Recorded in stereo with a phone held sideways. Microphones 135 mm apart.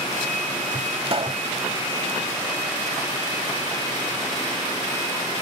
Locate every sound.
1.1 s a pop: 45° right (ahead or behind)